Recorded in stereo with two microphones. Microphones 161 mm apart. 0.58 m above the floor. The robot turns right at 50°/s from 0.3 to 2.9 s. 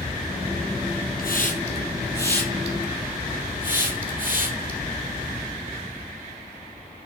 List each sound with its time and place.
1.2 s a hiss: 70° left (ahead or behind), 3 m; by 4.8 s 10° right (ahead or behind), 3 m